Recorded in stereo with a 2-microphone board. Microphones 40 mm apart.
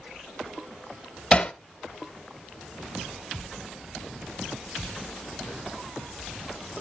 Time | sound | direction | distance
1.3 | hammering | 30° left (ahead or behind) | 0.7 m